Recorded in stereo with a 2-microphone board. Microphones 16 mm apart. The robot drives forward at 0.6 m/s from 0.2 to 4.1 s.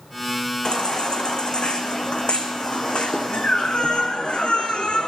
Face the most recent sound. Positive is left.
turn(degrees=80)